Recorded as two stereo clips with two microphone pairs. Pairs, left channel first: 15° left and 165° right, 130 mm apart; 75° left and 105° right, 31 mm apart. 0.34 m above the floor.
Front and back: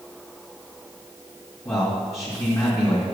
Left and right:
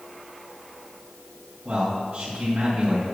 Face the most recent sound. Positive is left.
turn(degrees=-50)